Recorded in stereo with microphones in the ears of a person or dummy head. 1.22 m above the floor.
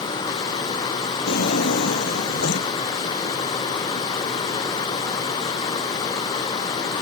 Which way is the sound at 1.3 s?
65° left (ahead or behind).